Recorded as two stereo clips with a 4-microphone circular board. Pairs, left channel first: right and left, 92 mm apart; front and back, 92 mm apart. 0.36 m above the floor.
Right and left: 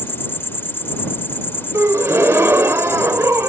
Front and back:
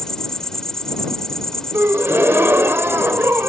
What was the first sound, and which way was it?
An insect, 75° right.